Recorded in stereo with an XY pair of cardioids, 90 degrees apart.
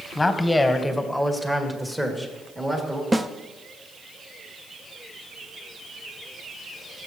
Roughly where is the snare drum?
Ahead.